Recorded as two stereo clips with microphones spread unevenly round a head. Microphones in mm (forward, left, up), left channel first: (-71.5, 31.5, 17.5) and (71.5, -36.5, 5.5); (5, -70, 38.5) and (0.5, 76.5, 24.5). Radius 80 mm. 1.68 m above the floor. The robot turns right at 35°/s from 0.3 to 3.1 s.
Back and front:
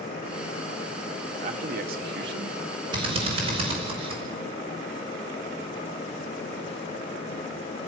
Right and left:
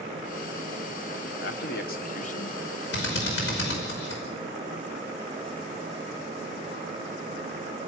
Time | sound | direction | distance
1.4 | a man speaking | 75° right | 1.6 m
2.9 | a drill | 90° right | 5.5 m